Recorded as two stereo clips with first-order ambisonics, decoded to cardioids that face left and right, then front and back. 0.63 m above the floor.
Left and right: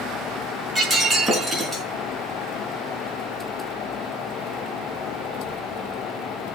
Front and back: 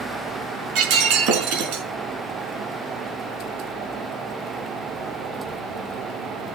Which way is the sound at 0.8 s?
165° right.